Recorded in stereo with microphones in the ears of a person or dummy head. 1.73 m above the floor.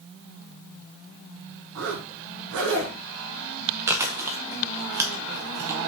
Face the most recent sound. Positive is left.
turn(degrees=-5)  # may be behind; listen again after turning